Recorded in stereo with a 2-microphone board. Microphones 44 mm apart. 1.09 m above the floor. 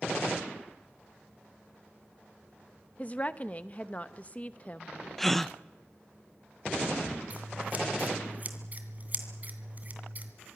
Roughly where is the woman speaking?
Left.